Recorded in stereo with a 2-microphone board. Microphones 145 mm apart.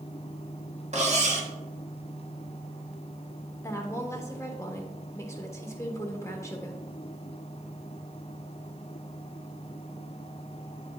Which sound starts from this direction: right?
Cutlery clinking, at 0.9 s.